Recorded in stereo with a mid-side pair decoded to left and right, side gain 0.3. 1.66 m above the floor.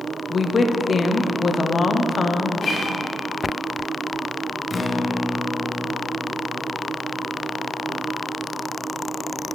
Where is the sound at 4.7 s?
45° left, 1.1 m.